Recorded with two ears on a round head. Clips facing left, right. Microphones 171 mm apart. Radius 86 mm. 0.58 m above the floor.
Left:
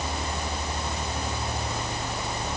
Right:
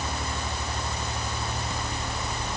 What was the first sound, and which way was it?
Only background noise.